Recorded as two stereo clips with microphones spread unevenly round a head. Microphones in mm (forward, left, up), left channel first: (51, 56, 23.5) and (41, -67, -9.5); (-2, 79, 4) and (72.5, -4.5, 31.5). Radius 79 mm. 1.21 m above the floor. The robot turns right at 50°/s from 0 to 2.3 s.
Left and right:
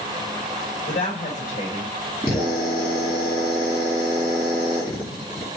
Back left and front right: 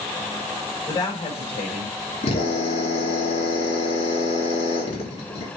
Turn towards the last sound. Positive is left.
turn(degrees=155)